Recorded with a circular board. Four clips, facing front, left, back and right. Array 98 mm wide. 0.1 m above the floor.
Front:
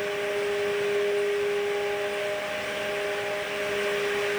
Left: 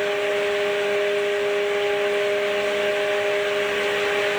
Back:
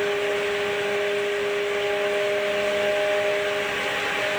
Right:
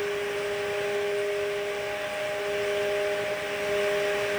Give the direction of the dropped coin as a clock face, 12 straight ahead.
No dropped coin in this recording.